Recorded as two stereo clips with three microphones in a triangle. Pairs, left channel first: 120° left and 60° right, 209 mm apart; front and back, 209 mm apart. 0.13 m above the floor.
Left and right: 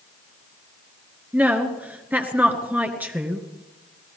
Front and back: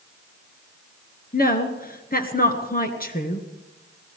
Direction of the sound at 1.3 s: 20° left.